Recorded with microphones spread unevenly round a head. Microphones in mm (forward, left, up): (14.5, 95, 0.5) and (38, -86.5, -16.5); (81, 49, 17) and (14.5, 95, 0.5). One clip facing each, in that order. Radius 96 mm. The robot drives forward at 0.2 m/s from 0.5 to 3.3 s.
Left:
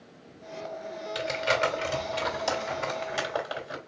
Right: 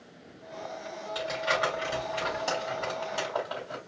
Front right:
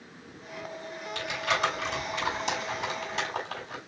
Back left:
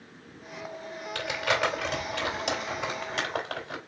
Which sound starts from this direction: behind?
Crumpling, at 1.1 s.